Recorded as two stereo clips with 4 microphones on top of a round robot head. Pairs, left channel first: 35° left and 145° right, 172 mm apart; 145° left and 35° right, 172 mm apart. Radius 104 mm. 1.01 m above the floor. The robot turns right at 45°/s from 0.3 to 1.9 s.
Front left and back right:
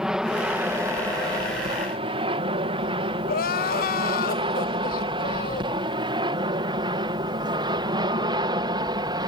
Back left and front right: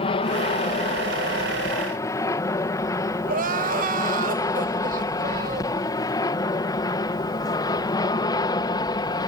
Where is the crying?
5° left.